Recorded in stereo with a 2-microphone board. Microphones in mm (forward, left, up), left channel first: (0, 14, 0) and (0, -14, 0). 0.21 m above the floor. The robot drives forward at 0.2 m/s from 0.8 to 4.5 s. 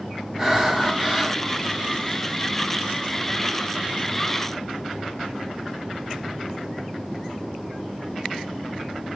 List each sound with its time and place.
0.4 s breathing: 10° right (ahead or behind), 1.2 m